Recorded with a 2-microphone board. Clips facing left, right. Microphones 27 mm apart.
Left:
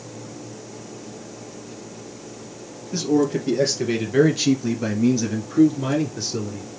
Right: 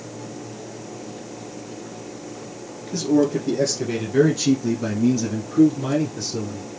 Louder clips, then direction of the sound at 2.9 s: Right 1 dB; 25° left (ahead or behind).